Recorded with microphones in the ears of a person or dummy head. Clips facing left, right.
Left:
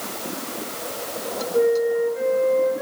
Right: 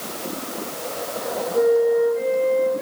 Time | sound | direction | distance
1.5 | a flute | 50° left (ahead or behind) | 6.5 m